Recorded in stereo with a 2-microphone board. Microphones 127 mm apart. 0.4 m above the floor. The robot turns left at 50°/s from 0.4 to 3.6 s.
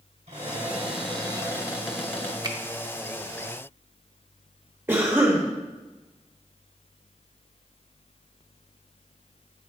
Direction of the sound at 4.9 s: 20° right (ahead or behind).